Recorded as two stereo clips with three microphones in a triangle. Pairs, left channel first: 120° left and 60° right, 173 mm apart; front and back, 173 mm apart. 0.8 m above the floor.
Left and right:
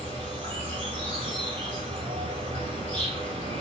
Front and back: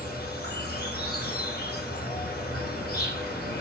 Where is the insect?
5° right, 2.5 m.